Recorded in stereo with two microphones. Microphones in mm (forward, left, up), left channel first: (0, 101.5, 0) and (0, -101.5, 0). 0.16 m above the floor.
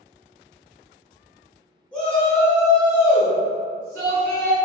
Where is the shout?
5° left (ahead or behind), 1.5 m; by 4.6 s 10° left (ahead or behind), 1.6 m.